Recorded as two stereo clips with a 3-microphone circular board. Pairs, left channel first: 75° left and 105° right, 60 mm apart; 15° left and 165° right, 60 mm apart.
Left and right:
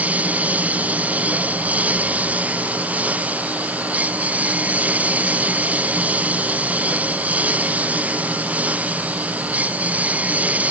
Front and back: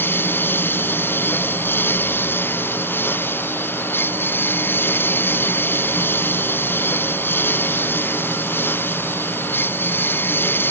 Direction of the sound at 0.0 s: 40° right.